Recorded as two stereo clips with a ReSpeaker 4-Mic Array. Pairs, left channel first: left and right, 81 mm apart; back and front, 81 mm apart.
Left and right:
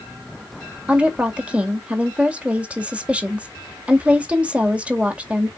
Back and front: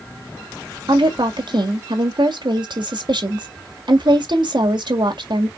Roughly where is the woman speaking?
Ahead.